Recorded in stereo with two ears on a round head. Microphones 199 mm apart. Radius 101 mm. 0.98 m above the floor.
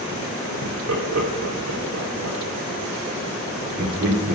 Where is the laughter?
80° right, 2.5 m.